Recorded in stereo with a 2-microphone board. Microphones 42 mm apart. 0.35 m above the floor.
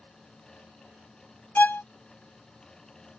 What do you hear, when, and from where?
1.6 s a violin: 45° left (ahead or behind)